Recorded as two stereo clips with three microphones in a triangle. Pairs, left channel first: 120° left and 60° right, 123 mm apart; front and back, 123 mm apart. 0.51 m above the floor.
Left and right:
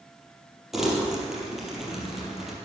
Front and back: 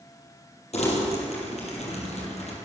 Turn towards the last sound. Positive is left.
turn(degrees=30)